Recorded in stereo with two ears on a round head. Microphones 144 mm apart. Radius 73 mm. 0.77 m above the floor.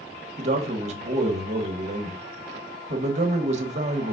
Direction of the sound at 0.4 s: 45° right (ahead or behind).